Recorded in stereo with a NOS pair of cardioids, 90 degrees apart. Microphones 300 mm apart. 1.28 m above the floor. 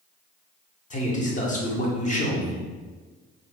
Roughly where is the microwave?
I don't hear a microwave.